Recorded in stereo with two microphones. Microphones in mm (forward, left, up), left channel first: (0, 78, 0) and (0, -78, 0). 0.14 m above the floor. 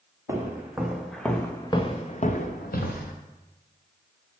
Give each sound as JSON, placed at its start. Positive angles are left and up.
{"t": 0.3, "sound": "footsteps", "side_deg": -15, "distance_m": 1.9}